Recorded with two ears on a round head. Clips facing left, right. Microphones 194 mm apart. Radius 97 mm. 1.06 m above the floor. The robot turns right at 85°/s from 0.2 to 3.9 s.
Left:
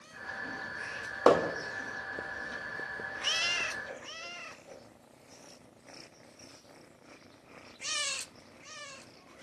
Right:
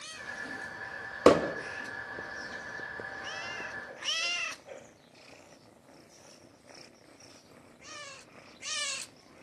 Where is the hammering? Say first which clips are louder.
Right 2 dB; 30° right (ahead or behind), 0.6 m; by 1.5 s 20° right (ahead or behind), 0.6 m.